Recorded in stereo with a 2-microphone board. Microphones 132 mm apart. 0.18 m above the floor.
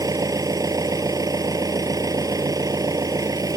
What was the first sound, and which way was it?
An engine running, 30° right (ahead or behind).